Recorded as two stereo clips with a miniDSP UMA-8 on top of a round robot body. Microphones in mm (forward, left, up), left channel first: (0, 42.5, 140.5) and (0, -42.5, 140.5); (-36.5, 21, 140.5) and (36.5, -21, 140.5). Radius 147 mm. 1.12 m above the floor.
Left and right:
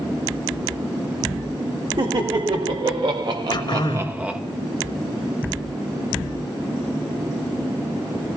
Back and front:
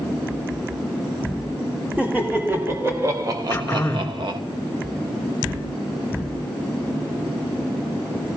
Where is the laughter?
100° right, 3 m; by 4.4 s 5° right, 1.4 m.